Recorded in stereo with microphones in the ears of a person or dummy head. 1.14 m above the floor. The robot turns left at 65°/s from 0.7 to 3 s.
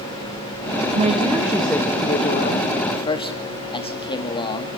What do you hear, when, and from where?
0.9 s a woman speaking: 135° right, 1.3 m; by 2.7 s 115° left, 1.3 m
2.9 s a man speaking: 20° left (ahead or behind), 1.7 m; by 4.7 s 25° left (ahead or behind), 1.7 m